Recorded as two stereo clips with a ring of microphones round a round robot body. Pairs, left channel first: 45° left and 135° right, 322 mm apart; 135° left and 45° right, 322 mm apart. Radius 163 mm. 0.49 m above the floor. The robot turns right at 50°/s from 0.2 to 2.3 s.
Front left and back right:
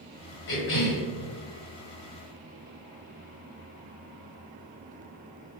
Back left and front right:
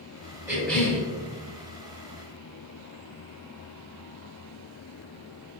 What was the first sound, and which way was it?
A cough, 40° left.